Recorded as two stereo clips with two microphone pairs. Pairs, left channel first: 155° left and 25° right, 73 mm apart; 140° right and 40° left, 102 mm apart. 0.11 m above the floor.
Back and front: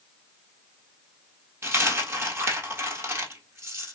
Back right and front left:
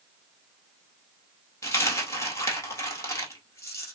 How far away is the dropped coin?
About 1.4 m.